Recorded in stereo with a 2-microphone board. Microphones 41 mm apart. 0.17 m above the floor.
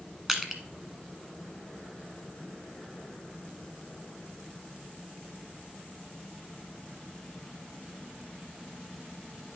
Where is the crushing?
10° right (ahead or behind), 1.1 m.